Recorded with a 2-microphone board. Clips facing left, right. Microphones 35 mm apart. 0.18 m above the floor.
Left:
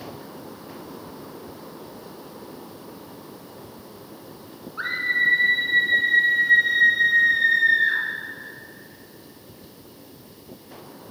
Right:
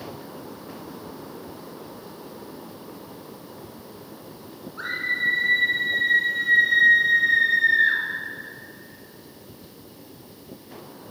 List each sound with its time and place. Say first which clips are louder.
4.8 s a scream: left 3 dB; 20° left (ahead or behind), 2.5 m; by 8.0 s 20° right (ahead or behind), 2.5 m